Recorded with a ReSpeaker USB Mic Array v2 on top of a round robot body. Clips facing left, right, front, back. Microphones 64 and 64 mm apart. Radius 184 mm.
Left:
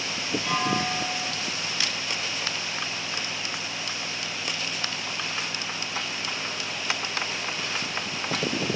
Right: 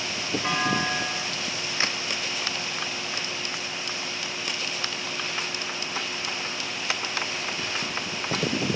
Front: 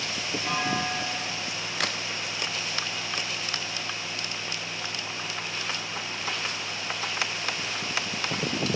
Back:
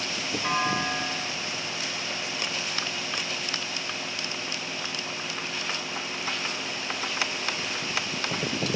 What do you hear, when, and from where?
0.4 s a clunk: 135° right, 7.5 m
1.8 s a crack: 30° right, 0.7 m